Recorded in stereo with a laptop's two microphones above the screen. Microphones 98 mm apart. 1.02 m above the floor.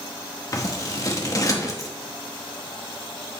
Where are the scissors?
35° left (ahead or behind), 0.9 m.